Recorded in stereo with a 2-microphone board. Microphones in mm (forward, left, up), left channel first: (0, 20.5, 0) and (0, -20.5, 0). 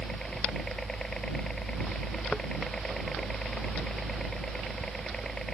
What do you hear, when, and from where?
0.0 s a helicopter: 10° left (ahead or behind)